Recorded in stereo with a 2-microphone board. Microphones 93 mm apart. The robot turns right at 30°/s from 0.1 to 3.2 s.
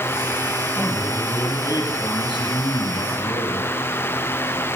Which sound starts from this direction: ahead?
A man speaking, at 0.8 s.